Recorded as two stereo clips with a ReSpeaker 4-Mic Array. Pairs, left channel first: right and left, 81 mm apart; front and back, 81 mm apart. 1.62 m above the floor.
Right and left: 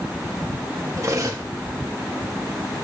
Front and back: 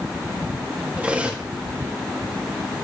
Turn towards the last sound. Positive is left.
turn(degrees=110)